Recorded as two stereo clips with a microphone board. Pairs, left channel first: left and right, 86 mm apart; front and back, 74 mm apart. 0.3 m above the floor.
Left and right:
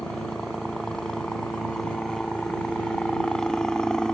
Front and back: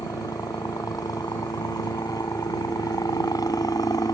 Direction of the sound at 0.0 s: 10° left.